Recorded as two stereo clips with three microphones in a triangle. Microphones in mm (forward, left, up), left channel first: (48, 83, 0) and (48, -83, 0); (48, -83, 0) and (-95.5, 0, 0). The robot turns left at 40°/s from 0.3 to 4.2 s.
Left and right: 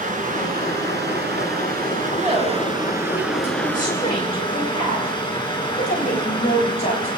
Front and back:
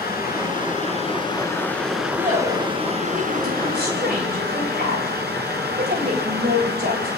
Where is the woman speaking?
140° right, 9.5 m; by 7.1 s 135° left, 9.5 m.